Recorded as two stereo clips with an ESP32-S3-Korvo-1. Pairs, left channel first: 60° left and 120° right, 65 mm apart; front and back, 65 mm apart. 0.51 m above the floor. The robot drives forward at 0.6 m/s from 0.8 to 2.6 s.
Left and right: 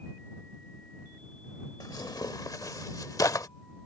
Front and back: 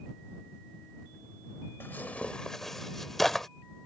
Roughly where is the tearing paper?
Ahead left.